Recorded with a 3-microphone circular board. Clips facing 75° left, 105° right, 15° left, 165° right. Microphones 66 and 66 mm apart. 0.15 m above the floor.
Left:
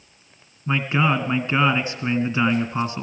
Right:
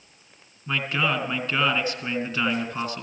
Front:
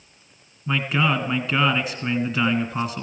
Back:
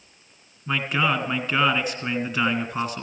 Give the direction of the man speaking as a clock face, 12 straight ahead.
9 o'clock.